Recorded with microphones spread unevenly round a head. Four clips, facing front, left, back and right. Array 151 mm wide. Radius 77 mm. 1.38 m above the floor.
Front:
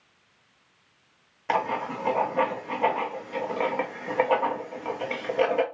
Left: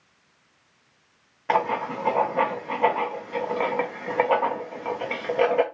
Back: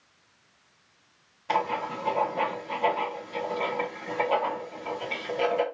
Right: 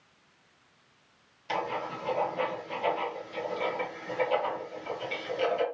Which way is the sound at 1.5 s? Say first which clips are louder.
Left 9 dB, front 1 dB; 65° left.